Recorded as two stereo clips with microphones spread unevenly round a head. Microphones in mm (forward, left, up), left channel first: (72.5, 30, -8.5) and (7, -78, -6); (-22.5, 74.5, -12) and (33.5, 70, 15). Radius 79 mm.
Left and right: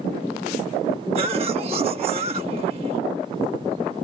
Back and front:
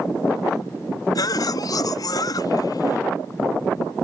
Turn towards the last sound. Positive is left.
turn(degrees=180)